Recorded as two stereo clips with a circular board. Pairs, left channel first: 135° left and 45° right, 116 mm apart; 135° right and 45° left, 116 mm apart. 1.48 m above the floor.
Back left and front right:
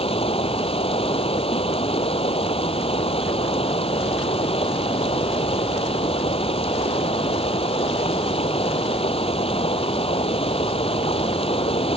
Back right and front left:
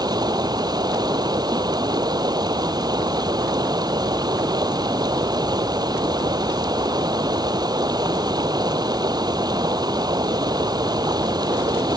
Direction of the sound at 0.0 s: 100° left.